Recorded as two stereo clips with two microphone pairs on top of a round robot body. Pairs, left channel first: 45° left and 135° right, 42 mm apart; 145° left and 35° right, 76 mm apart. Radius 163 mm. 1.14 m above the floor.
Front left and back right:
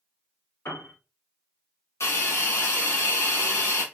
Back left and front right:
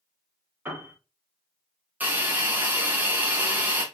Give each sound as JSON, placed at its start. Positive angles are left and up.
{"t": 0.7, "sound": "a piano", "azimuth_deg": 35, "distance_m": 1.6}
{"t": 2.0, "sound": "a hiss", "azimuth_deg": 35, "distance_m": 1.3}